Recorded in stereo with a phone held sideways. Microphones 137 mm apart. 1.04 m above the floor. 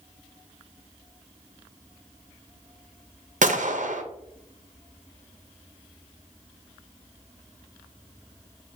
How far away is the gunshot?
About 0.6 m.